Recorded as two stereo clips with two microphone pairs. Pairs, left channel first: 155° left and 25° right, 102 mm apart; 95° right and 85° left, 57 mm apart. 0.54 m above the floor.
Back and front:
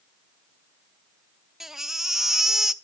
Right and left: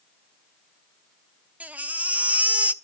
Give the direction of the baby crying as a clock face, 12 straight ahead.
10 o'clock.